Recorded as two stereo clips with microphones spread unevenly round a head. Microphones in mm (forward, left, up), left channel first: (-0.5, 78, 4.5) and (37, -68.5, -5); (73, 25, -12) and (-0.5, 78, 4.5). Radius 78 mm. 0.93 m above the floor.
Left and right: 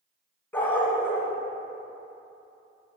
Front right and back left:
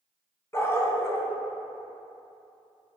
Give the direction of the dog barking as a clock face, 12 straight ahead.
11 o'clock.